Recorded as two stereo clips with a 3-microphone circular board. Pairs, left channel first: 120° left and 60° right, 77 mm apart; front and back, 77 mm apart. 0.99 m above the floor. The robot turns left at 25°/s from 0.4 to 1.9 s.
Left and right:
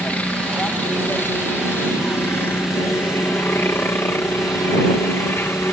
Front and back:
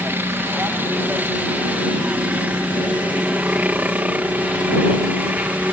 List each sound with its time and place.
0.0 s a helicopter: 170° left; by 5.7 s 130° left